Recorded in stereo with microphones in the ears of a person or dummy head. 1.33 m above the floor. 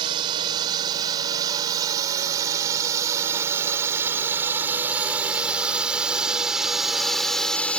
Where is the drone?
25° right (ahead or behind); by 7.8 s 5° left (ahead or behind).